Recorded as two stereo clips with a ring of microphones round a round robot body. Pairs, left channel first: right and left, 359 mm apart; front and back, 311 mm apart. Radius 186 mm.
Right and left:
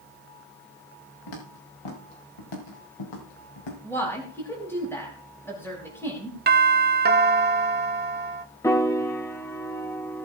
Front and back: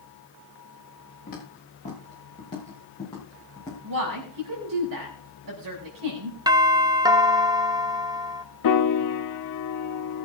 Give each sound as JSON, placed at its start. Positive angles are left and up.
{"t": 1.3, "sound": "footsteps", "azimuth_deg": -70, "distance_m": 5.5}
{"t": 3.8, "sound": "a woman speaking", "azimuth_deg": -175, "distance_m": 5.0}
{"t": 6.5, "sound": "a doorbell", "azimuth_deg": 115, "distance_m": 1.1}
{"t": 8.6, "sound": "a piano", "azimuth_deg": -10, "distance_m": 1.4}